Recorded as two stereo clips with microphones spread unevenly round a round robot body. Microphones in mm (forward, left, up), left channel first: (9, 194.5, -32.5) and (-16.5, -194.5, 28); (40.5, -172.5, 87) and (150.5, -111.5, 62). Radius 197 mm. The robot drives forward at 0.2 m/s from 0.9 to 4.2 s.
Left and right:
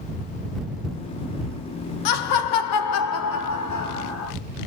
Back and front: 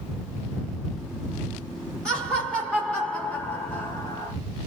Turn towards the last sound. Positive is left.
turn(degrees=135)